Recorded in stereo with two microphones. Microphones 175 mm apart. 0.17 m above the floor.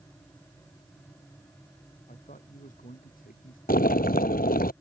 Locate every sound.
2.1 s a man speaking: 50° left (ahead or behind); by 3.6 s 55° left (ahead or behind)
3.7 s boiling: 55° left (ahead or behind)